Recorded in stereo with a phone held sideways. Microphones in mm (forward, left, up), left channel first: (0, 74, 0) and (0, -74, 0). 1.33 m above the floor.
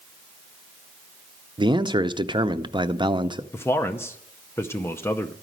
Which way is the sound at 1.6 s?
35° right (ahead or behind).